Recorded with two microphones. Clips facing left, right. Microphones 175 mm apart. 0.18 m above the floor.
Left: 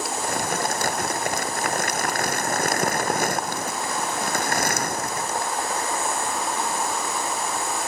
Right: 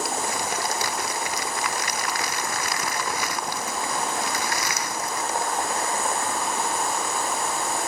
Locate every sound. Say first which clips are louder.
0.2 s crumpling: left 2 dB; 50° left (ahead or behind)